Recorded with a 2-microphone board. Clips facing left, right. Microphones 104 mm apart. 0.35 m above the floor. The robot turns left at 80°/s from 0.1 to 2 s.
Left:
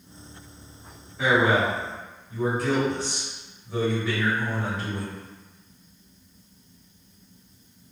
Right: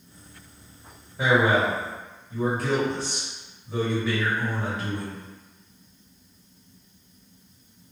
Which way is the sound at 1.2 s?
115° right.